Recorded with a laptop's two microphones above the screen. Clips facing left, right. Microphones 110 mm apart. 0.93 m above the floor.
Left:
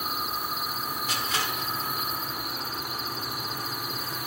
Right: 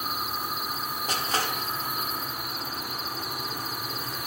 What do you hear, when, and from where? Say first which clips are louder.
1.1 s crushing: right 4 dB; 40° right (ahead or behind), 0.8 m